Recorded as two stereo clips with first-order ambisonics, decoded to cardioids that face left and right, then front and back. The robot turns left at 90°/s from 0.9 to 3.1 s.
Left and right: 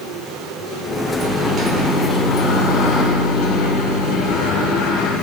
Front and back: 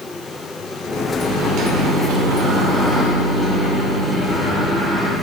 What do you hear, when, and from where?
1.2 s a microwave: 115° right, 3 m; by 5.1 s 75° left, 3 m